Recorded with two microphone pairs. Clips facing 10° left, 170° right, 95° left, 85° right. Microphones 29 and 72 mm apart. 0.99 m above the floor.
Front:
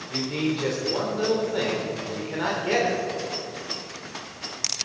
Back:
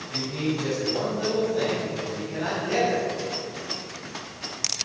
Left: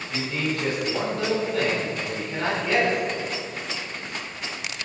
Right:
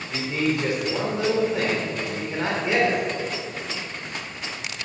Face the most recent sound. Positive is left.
turn(degrees=-15)